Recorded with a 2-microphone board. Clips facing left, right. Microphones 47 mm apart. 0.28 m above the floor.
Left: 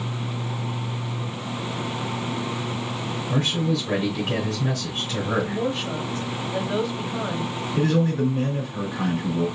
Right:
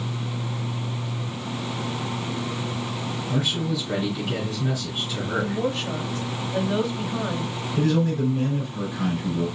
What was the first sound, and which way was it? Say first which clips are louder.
A man speaking: left 2 dB; 50° left (ahead or behind).